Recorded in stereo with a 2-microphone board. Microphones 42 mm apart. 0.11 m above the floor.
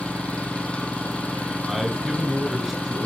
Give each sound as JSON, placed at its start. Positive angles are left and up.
{"t": 0.0, "sound": "an engine running", "side_deg": 30, "distance_m": 1.5}
{"t": 1.7, "sound": "a man speaking", "side_deg": -5, "distance_m": 1.9}